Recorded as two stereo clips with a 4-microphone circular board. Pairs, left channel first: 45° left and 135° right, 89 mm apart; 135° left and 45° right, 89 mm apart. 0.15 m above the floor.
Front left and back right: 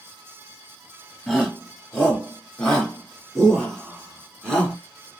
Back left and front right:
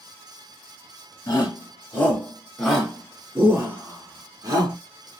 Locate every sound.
1.3 s a shout: 130° left, 1.5 m; by 4.8 s 35° right, 1.7 m